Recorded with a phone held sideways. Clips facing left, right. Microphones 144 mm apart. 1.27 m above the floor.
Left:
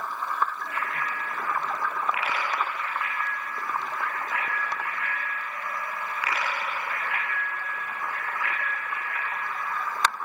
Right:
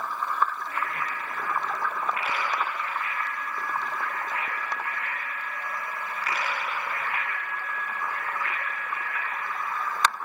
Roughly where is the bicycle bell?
Left.